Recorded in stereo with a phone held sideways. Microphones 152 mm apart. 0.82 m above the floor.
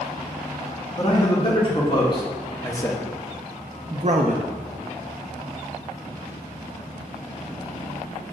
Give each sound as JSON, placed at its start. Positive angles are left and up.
{"t": 1.0, "sound": "a man speaking", "side_deg": 40, "distance_m": 2.0}